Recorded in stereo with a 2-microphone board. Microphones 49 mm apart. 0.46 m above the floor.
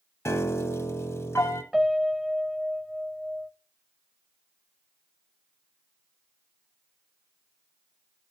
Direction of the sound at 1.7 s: Centre (ahead or behind).